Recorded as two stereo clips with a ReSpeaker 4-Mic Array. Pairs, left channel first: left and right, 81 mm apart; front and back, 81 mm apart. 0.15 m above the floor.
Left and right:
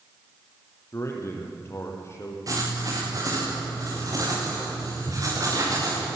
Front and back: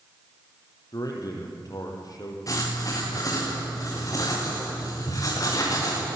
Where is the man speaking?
35° left, 4.5 m.